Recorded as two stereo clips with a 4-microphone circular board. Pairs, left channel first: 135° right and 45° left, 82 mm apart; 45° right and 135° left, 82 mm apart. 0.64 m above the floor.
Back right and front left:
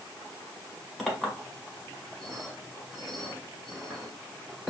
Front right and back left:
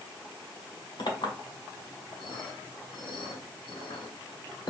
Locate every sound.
1.0 s a clink: 40° right, 1.3 m